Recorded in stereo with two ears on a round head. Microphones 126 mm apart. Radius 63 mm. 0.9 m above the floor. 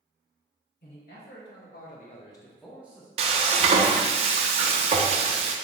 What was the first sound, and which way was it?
A man speaking, 70° left (ahead or behind).